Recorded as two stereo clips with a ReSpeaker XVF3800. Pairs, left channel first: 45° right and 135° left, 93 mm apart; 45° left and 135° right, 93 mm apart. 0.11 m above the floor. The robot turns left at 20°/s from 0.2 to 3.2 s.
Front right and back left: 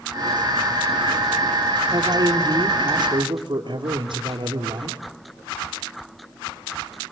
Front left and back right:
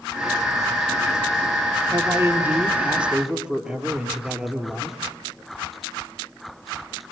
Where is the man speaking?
170° left, 3 m; by 5.0 s 145° left, 3 m.